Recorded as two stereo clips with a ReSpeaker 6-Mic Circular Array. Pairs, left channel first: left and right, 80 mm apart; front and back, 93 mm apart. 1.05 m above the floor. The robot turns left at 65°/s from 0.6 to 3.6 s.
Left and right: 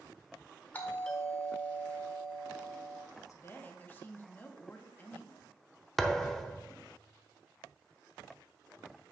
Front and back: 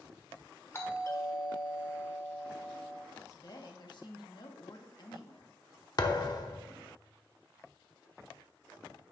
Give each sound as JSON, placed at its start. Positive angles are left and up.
{"t": 0.7, "sound": "a doorbell", "azimuth_deg": 45, "distance_m": 1.2}
{"t": 3.1, "sound": "a woman speaking", "azimuth_deg": 60, "distance_m": 1.2}
{"t": 6.0, "sound": "a thud", "azimuth_deg": 5, "distance_m": 0.8}